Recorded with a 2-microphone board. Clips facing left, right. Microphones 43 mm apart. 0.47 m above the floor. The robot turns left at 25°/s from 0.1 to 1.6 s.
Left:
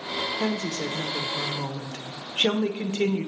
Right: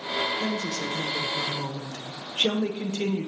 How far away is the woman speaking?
About 0.9 m.